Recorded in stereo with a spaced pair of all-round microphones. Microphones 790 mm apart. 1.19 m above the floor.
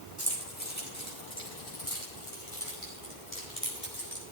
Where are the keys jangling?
10° left (ahead or behind), 6 m; by 4.2 s 35° left (ahead or behind), 4 m.